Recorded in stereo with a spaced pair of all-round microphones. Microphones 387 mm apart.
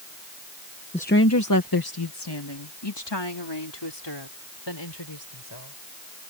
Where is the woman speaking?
15° left (ahead or behind); by 5.8 s 90° left.